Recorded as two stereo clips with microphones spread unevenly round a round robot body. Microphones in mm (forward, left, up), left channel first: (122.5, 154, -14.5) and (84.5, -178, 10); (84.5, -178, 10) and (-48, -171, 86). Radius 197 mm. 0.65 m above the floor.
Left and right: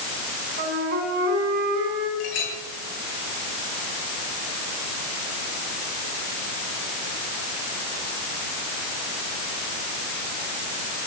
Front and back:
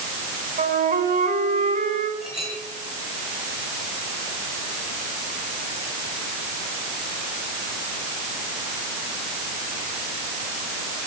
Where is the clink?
75° left, 9 m.